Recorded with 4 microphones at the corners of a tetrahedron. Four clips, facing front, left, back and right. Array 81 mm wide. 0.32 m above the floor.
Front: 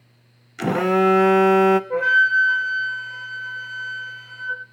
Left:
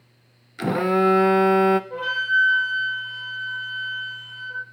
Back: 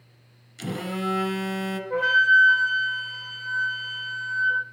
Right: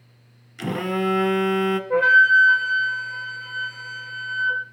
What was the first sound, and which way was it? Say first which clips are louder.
A phone buzzing: left 5 dB, front 12 dB; 20° left.